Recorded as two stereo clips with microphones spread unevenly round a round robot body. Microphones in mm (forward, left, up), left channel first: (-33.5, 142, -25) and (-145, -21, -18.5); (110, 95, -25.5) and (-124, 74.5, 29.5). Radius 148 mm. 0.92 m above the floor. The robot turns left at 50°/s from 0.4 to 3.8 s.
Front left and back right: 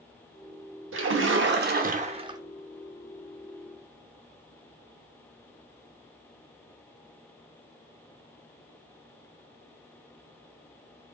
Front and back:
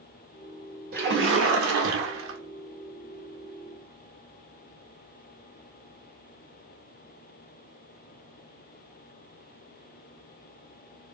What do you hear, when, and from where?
0.9 s a splash: 125° right, 1.0 m; by 2.4 s 165° left, 1.0 m